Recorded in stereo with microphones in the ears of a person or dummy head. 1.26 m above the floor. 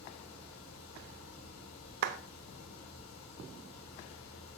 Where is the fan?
80° left, 4 m.